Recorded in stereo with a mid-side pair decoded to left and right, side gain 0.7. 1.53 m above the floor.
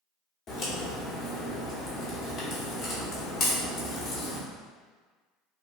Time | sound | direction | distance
0.5 | a crack | 45° left | 0.9 m